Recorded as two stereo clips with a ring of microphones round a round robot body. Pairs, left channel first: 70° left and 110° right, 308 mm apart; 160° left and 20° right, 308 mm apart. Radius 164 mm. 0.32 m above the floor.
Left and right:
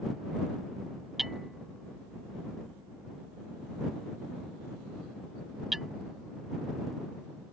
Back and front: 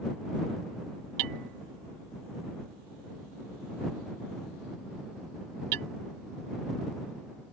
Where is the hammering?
25° right.